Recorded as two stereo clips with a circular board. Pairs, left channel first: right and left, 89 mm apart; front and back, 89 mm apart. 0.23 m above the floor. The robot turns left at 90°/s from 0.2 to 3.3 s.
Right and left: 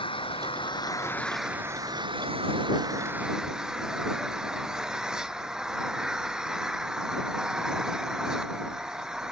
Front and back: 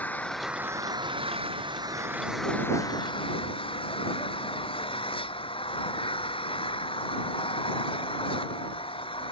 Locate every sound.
0.0 s an engine running: 75° right; by 9.3 s 10° left